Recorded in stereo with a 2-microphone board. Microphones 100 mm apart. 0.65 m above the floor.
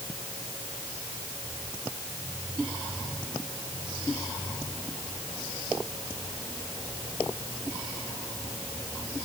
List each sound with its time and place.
Only background noise.